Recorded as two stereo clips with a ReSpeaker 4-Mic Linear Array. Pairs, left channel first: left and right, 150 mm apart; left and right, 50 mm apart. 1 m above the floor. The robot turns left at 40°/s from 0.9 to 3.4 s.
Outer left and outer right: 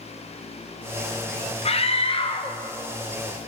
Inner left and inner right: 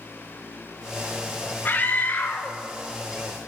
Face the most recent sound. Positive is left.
turn(degrees=20)